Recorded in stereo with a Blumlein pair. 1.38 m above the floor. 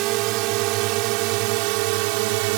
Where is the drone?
40° right; by 2.6 s 45° right.